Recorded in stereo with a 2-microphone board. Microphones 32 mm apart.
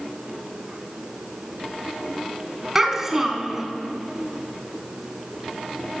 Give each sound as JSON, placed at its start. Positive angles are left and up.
{"t": 2.8, "sound": "a child speaking", "side_deg": -15, "distance_m": 1.2}